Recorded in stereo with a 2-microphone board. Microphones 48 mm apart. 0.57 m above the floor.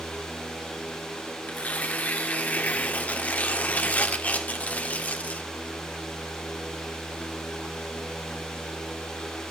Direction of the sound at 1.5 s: 30° left (ahead or behind).